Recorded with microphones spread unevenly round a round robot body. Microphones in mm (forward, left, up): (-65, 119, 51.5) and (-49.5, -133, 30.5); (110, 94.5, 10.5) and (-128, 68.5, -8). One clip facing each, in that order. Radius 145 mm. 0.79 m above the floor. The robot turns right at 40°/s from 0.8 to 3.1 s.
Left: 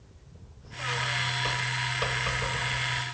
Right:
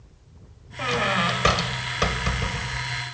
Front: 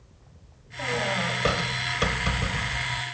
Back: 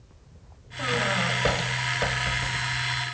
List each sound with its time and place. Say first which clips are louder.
0.8 s a squeak: right 12 dB, back 1 dB; 100° right; by 3.0 s 10° right